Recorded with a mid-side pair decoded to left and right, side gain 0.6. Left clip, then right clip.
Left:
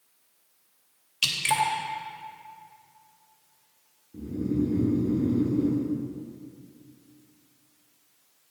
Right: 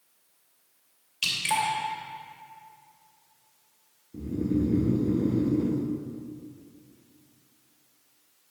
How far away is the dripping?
About 2.5 m.